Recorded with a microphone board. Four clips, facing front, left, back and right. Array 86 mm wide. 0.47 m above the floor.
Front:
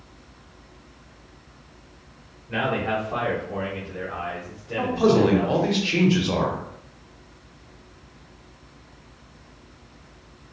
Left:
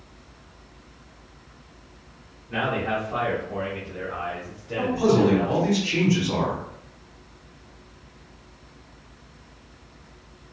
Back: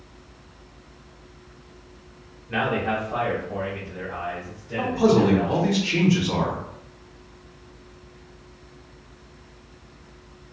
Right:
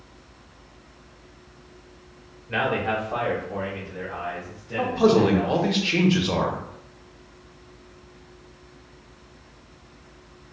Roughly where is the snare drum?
I don't hear a snare drum.